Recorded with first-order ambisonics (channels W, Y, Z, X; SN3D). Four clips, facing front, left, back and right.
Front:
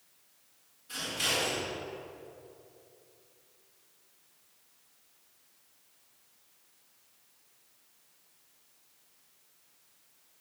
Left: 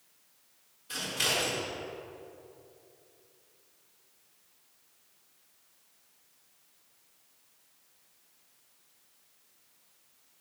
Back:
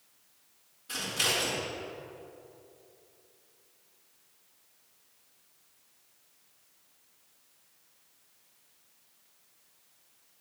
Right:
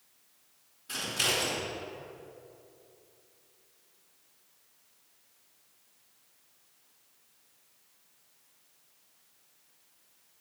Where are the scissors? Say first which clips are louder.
Even, back 2 dB; 125° right, 4.5 m.